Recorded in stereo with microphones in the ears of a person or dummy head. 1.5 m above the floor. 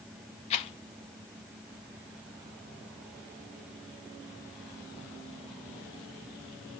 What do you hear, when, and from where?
0.5 s a rattle: 35° left (ahead or behind), 1.9 m